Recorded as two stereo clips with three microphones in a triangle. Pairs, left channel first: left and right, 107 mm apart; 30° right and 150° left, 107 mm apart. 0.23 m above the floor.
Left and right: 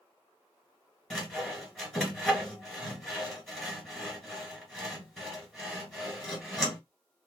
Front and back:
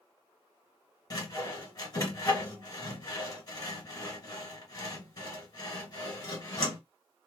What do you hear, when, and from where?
1.1 s sawing: straight ahead, 1.6 m